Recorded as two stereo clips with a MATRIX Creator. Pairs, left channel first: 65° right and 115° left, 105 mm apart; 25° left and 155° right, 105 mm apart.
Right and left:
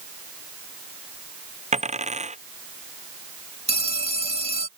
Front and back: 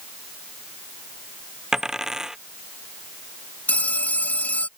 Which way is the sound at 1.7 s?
115° left.